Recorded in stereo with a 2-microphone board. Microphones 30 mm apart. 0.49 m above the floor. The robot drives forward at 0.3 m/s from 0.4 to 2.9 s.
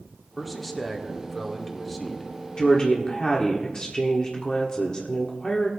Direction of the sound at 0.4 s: 5° left (ahead or behind).